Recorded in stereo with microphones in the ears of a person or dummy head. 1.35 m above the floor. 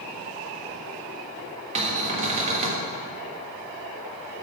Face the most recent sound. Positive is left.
turn(degrees=-35)  # may be behind; listen again after turning